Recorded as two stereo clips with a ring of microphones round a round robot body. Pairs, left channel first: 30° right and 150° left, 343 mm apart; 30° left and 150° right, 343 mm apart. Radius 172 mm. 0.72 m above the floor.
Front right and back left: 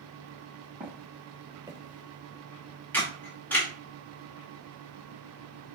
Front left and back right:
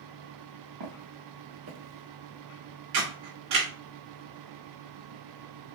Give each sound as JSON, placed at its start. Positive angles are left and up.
{"t": 0.8, "sound": "footsteps", "azimuth_deg": -135, "distance_m": 1.7}
{"t": 2.9, "sound": "a camera shutter", "azimuth_deg": -115, "distance_m": 2.5}